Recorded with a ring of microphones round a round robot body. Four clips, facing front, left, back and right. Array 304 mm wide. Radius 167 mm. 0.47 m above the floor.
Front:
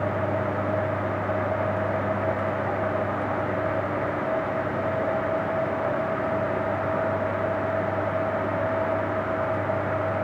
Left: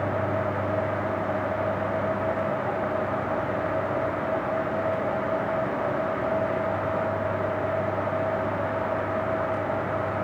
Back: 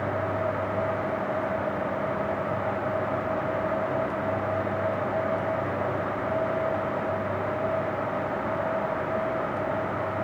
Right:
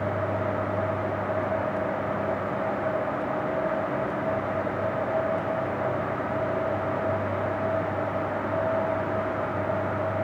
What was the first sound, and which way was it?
Only background noise.